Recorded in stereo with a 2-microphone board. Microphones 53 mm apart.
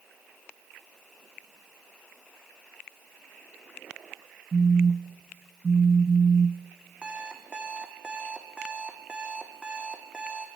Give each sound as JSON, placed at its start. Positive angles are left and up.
{"t": 4.5, "sound": "a phone buzzing", "side_deg": -35, "distance_m": 0.7}
{"t": 7.0, "sound": "an alarm clock", "side_deg": -20, "distance_m": 3.0}